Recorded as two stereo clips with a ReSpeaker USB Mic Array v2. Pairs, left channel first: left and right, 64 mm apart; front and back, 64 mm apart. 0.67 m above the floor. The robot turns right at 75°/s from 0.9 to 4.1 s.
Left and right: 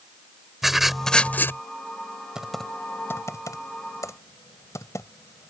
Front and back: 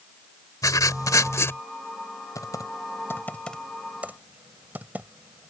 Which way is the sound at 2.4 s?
10° right.